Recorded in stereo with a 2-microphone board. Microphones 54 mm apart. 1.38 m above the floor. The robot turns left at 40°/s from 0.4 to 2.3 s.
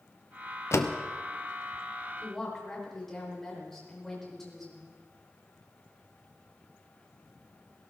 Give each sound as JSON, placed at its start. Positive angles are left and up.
{"t": 0.7, "sound": "a door slam", "side_deg": 55, "distance_m": 0.9}
{"t": 2.2, "sound": "a woman speaking", "side_deg": 0, "distance_m": 5.0}